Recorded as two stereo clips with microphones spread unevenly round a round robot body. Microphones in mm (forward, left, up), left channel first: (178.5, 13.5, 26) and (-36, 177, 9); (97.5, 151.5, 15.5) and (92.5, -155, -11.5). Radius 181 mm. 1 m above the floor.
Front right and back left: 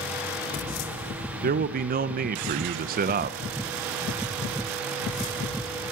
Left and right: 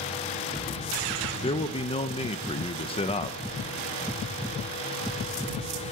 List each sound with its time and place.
1.4 s a man speaking: 160° left, 0.5 m